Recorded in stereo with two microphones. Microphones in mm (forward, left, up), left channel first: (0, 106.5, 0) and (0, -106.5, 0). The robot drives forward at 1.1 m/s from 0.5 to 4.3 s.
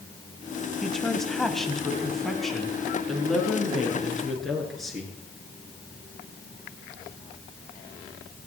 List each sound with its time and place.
0.8 s a woman speaking: centre (ahead or behind), 1.7 m